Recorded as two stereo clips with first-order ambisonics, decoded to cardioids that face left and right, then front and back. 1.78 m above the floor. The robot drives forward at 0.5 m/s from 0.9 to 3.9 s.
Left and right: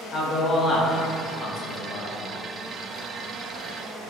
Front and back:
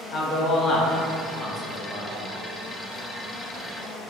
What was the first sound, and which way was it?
A man speaking, 35° left.